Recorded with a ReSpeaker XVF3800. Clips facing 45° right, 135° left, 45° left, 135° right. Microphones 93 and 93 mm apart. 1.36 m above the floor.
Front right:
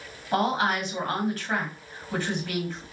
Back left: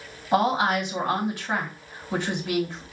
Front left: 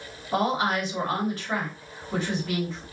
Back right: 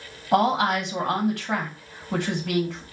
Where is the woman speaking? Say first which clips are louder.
Back left 3 dB, back right 4 dB; 155° right, 1.9 m.